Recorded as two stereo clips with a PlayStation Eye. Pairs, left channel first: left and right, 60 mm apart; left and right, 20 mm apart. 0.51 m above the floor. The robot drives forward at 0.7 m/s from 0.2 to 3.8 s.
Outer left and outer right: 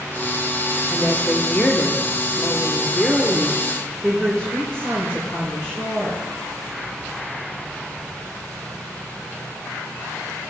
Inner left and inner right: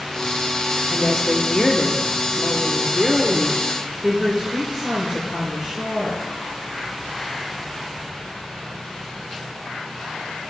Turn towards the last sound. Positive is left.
turn(degrees=15)  # may be behind; listen again after turning